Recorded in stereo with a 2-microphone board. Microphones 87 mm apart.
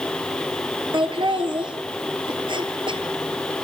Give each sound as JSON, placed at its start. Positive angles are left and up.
{"t": 0.9, "sound": "laughter", "side_deg": -70, "distance_m": 3.5}